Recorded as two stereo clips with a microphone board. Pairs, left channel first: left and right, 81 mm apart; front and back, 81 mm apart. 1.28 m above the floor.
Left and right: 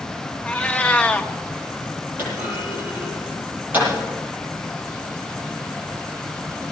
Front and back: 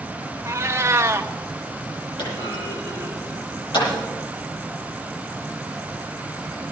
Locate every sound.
0.5 s a cat meowing: 155° left, 0.8 m
2.2 s a clunk: 25° right, 9 m